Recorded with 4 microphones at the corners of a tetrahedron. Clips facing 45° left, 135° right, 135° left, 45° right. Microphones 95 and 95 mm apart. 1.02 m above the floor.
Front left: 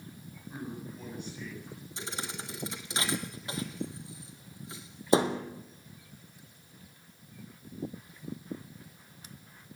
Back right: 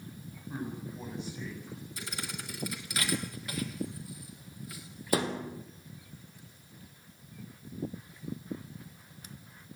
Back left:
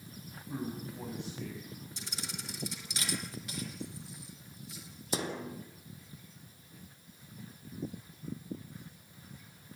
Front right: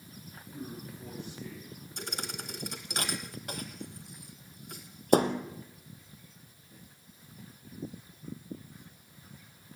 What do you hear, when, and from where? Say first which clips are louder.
0.5 s a man speaking: back right 2 dB, back left 4 dB; 160° left, 7.5 m
2.0 s a thud: front left 4 dB, front right 8 dB; 15° right, 2 m